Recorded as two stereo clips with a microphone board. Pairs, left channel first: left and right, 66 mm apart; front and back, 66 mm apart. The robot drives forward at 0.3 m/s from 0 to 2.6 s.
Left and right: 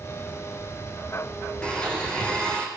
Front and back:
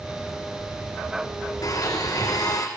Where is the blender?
15° left, 6 m.